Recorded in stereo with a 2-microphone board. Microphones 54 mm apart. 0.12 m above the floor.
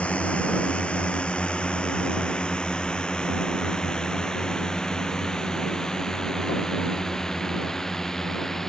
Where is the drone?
20° left (ahead or behind); by 8.7 s 5° left (ahead or behind).